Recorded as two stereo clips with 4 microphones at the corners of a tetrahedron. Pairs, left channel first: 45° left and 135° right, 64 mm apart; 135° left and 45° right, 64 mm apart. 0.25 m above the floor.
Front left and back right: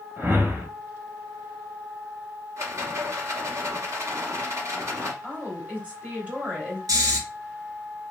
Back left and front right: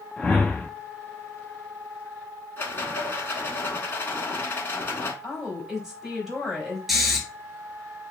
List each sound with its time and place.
0.2 s a whoosh: 160° right, 0.7 m
2.6 s a rattle: 170° right, 0.8 m
5.2 s a woman speaking: 120° right, 1.2 m
6.9 s snoring: 130° right, 0.9 m